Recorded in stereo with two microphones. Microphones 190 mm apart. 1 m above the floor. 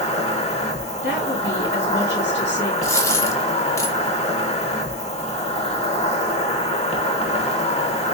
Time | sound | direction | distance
0.0 | an insect | 35° left (ahead or behind) | 1.0 m
1.0 | a woman speaking | 70° left (ahead or behind) | 1.8 m
2.8 | a dropped coin | 15° left (ahead or behind) | 0.8 m